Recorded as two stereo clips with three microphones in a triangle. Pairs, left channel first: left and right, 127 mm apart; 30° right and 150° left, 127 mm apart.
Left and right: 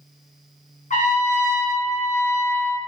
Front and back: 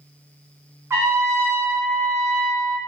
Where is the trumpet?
85° left, 0.5 m.